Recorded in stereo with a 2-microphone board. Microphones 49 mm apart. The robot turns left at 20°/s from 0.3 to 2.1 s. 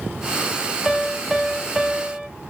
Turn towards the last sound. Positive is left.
turn(degrees=-25)  # may be behind; listen again after turning